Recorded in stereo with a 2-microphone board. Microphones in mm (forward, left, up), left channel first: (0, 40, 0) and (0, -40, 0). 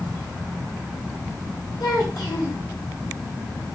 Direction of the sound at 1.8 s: 55° left (ahead or behind).